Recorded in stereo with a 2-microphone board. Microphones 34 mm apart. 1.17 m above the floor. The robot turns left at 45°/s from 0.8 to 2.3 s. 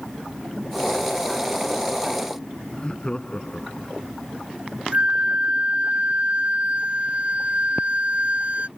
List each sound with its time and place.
2.7 s laughter: 25° left (ahead or behind)
4.9 s a flute: 45° right (ahead or behind)